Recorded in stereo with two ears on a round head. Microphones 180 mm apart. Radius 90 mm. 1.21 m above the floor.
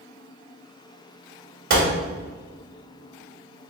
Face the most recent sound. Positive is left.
turn(degrees=-50)  # may be behind; listen again after turning